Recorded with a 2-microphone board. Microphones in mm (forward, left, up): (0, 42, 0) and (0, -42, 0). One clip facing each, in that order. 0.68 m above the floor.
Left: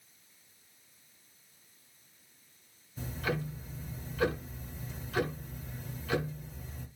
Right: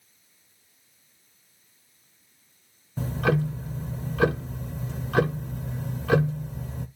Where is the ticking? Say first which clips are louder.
Right 10 dB; 70° right (ahead or behind), 0.8 m.